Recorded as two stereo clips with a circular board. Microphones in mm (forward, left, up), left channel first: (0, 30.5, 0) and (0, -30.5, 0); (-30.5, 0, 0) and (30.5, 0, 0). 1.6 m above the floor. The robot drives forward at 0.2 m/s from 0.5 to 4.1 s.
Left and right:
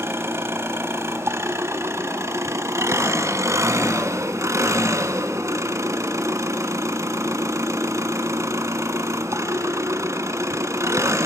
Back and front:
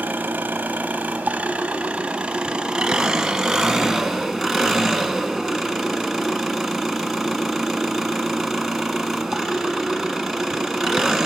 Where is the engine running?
55° right, 1.6 m; by 11.3 s 90° right, 1.4 m.